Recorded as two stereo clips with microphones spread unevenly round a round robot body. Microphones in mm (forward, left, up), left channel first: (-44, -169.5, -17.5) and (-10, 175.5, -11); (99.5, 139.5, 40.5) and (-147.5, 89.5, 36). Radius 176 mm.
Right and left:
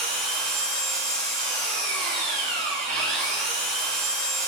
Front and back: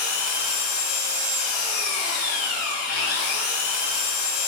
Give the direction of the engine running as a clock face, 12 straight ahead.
12 o'clock.